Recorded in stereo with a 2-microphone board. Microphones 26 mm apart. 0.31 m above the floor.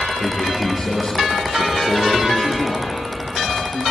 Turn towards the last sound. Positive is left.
turn(degrees=25)  # may be behind; listen again after turning